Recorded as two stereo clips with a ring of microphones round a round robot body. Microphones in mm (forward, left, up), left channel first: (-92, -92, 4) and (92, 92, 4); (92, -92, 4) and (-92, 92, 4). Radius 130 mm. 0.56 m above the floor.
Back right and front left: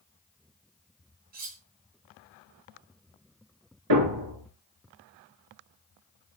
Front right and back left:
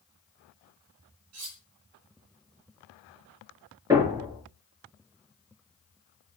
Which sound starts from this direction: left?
Cutlery clinking, at 1.3 s.